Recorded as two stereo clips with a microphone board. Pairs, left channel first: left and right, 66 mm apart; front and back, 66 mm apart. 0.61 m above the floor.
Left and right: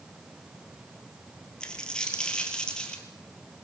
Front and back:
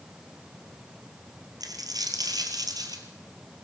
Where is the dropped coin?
165° left, 2.5 m.